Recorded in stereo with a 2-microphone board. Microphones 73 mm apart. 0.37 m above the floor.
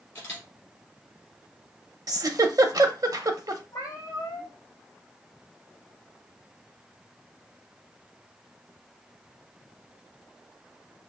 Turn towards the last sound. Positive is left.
turn(degrees=50)  # may be behind; listen again after turning